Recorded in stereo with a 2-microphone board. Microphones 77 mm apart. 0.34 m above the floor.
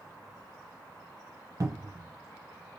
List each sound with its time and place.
1.6 s a cupboard door: 45° right (ahead or behind), 0.6 m